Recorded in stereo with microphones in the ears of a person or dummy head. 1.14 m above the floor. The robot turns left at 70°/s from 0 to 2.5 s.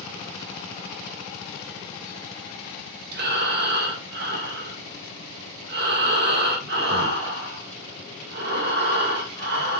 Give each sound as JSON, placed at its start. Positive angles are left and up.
{"t": 3.1, "sound": "breathing", "side_deg": -50, "distance_m": 0.9}